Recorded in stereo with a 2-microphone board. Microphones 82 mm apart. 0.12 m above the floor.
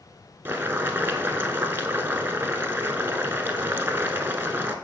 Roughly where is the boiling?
Right.